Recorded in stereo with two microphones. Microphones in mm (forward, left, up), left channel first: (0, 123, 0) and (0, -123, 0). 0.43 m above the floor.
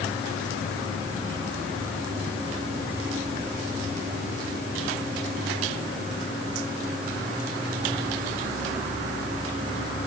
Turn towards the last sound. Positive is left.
No sound to turn to.